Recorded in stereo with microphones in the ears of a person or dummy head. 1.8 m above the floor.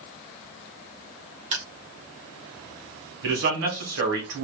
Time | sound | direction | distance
1.5 | crushing | 35° right (ahead or behind) | 1.1 m
3.2 | a man speaking | 55° right (ahead or behind) | 1.5 m